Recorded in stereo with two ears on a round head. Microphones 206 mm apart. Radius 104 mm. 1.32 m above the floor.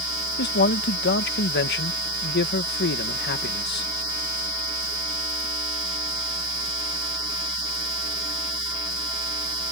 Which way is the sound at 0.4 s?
50° left (ahead or behind).